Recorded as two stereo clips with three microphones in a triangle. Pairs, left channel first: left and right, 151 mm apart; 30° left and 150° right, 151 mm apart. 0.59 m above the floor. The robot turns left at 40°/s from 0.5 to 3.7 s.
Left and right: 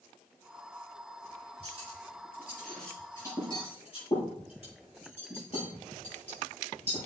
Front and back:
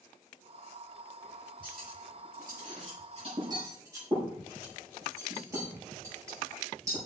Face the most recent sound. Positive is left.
turn(degrees=140)